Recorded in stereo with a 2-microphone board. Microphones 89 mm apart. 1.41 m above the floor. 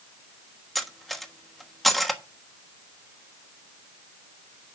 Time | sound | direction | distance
0.8 | cutlery clinking | centre (ahead or behind) | 1.2 m